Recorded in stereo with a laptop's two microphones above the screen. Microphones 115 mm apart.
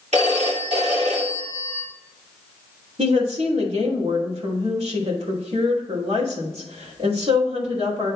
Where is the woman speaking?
65° right (ahead or behind), 2.5 m.